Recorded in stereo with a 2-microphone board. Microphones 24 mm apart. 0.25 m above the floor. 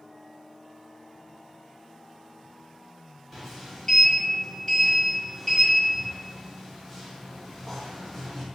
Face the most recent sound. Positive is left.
turn(degrees=15)  # may be behind; listen again after turning